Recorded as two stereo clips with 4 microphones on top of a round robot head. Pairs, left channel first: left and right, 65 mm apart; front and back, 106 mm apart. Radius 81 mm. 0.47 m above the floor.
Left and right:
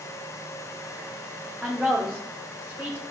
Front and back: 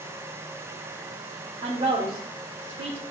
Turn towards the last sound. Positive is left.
turn(degrees=-155)